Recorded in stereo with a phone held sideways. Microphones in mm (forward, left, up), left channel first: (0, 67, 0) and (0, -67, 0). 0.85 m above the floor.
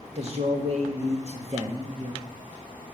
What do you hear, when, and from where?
0.1 s a man speaking: 50° right (ahead or behind), 1.3 m